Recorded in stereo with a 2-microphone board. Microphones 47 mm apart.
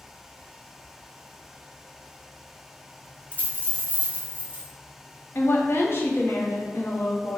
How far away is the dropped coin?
About 1.7 m.